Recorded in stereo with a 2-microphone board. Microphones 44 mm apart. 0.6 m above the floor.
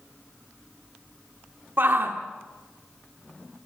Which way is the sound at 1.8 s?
50° right (ahead or behind).